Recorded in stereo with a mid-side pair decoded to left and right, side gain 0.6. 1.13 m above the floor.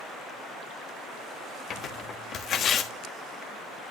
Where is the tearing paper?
45° left, 1.2 m.